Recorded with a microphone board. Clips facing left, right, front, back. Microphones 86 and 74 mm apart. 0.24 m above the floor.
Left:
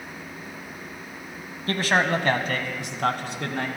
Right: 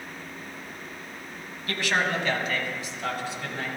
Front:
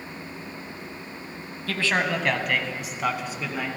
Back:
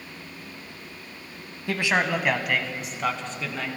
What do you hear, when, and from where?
1.7 s a man speaking: 120° left, 1.4 m; by 3.7 s 75° left, 2 m